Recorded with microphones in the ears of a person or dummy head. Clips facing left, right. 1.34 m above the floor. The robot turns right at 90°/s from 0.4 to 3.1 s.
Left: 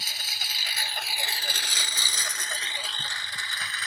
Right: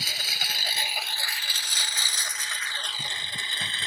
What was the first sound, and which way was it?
A lawn mower, 60° right (ahead or behind).